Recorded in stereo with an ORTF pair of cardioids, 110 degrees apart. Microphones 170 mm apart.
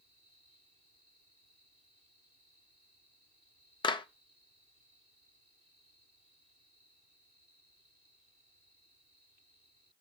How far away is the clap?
About 1.0 m.